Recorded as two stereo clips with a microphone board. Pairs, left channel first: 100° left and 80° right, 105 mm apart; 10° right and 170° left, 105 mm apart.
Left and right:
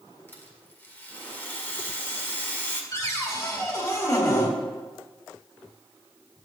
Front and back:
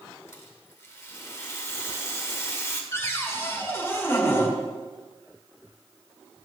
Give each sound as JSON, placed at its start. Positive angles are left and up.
{"t": 0.3, "sound": "a rattle", "azimuth_deg": 40, "distance_m": 1.7}
{"t": 2.9, "sound": "a cupboard door", "azimuth_deg": 50, "distance_m": 1.7}